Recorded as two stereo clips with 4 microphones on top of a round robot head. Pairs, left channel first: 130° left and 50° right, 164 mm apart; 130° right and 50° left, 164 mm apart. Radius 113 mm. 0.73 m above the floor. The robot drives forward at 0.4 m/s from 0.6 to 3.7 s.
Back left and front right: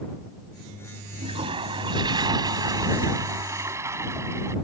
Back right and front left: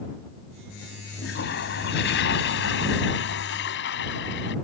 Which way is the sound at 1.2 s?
110° right.